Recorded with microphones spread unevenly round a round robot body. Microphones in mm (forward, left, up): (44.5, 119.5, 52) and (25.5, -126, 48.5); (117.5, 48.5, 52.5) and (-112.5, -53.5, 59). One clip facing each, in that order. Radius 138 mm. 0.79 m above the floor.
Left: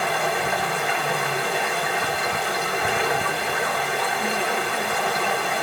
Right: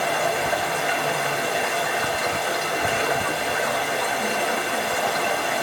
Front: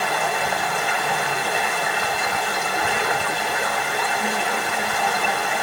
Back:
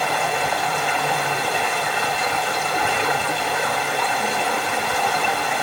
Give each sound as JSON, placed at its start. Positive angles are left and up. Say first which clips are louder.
{"t": 0.0, "sound": "running water", "louder": "right 1 dB, back 1 dB", "azimuth_deg": -155, "distance_m": 1.9}